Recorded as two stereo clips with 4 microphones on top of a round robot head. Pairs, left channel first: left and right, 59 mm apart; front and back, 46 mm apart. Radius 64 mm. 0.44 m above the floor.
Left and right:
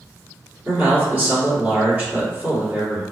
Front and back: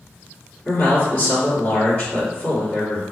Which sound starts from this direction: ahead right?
A man speaking, at 0.7 s.